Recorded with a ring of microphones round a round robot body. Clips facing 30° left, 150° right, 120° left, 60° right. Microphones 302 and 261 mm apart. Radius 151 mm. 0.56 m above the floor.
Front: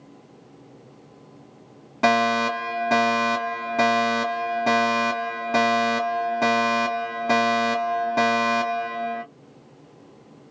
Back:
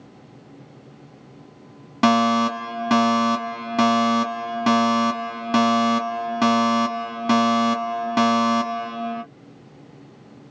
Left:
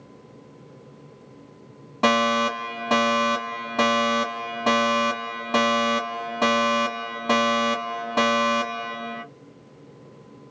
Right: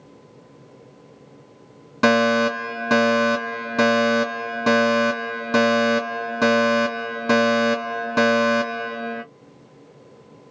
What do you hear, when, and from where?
2.0 s a fire alarm: 120° right, 2.5 m